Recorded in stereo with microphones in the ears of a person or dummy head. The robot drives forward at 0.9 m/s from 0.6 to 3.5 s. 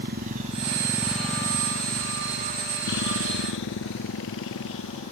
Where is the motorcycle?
55° right (ahead or behind); by 5.1 s 75° left (ahead or behind).